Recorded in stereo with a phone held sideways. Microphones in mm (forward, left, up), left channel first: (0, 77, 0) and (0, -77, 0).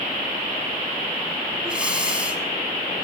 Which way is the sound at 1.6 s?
5° right (ahead or behind).